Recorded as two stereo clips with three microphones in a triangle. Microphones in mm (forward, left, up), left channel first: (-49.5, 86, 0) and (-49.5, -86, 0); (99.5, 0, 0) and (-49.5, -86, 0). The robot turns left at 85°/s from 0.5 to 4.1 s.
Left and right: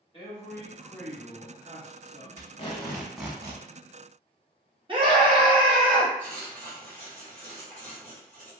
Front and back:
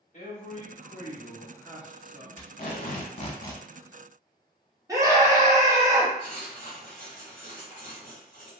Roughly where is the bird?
No bird in this recording.